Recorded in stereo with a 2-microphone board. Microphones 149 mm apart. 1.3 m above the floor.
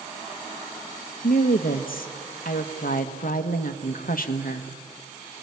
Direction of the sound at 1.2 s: 70° left (ahead or behind).